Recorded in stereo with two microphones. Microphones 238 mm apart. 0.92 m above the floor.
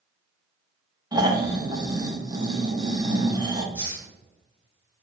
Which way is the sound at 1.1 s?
15° right (ahead or behind).